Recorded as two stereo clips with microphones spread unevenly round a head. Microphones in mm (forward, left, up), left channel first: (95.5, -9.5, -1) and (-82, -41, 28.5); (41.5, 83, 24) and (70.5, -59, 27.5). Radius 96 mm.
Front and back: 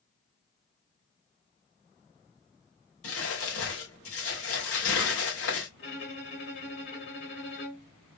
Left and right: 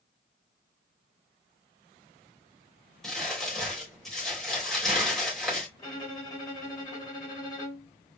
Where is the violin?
40° left, 3 m.